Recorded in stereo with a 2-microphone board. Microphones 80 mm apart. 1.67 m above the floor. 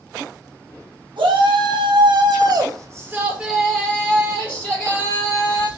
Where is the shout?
80° right, 1.1 m; by 5.7 s 35° left (ahead or behind), 1.6 m.